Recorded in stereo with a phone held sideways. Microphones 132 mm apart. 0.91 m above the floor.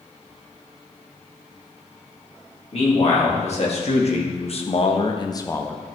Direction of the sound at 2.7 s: 55° left (ahead or behind).